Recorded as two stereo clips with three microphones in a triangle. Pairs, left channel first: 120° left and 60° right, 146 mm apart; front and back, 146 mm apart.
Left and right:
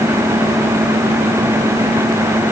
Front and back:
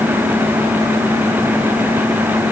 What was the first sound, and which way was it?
Only background noise.